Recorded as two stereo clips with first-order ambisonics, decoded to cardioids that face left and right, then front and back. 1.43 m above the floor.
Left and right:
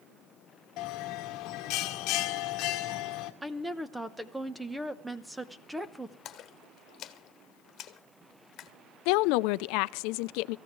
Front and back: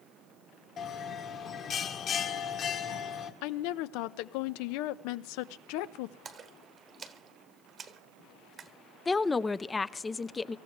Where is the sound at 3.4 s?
5° right, 1.0 m.